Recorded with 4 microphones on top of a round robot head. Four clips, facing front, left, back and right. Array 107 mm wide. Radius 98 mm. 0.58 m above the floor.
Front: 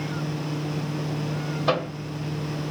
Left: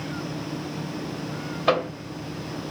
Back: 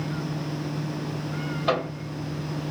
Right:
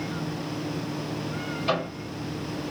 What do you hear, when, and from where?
1.7 s a microwave: 70° left, 2 m